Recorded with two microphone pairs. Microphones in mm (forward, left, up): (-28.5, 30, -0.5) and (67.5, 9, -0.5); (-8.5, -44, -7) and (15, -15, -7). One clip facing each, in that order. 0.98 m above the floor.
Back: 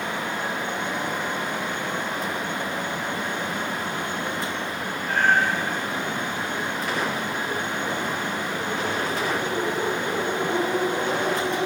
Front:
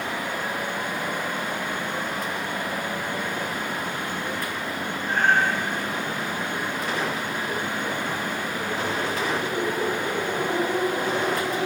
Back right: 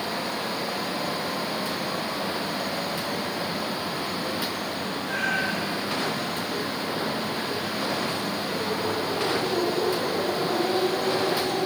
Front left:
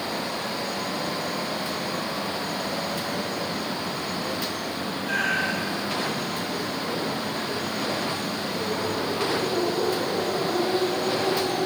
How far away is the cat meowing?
About 6.5 m.